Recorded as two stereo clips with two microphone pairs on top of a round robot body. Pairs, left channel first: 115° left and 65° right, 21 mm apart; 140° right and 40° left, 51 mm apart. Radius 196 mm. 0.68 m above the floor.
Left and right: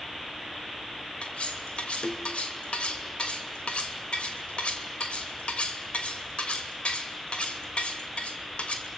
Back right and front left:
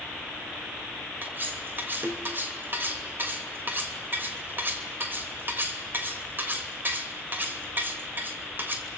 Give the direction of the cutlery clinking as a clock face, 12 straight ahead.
9 o'clock.